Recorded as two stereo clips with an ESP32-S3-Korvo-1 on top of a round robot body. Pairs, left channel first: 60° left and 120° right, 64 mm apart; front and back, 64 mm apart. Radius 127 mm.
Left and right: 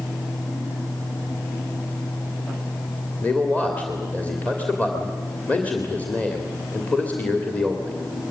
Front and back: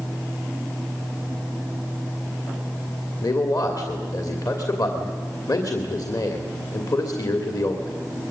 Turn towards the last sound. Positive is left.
turn(degrees=-10)